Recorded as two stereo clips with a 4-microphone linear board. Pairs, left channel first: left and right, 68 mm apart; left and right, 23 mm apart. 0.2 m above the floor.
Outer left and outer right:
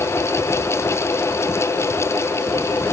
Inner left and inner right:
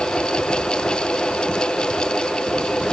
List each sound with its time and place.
Only background noise.